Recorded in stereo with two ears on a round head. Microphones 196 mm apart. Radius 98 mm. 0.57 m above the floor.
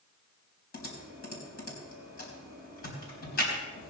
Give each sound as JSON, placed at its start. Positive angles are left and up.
{"t": 0.7, "sound": "typing on a keyboard", "side_deg": 45, "distance_m": 4.0}